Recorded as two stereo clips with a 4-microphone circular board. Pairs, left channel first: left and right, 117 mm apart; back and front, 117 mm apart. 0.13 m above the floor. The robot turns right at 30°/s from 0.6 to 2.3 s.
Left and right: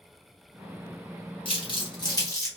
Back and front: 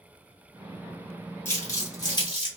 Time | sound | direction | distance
1.4 | crumpling | 115° left | 1.5 m